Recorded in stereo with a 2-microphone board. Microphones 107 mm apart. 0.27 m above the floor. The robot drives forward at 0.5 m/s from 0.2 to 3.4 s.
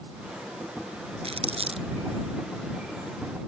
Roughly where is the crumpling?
Right.